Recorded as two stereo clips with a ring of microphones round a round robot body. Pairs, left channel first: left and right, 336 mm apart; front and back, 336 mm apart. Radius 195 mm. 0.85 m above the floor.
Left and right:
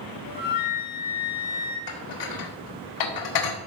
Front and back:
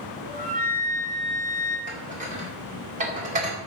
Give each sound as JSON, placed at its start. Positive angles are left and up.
{"t": 0.2, "sound": "a flute", "azimuth_deg": 110, "distance_m": 1.8}
{"t": 1.9, "sound": "dishes clattering", "azimuth_deg": 110, "distance_m": 1.8}